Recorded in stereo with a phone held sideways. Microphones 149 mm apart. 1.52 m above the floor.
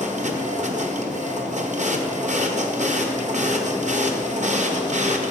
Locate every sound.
0.0 s a machine running: 55° right (ahead or behind), 0.9 m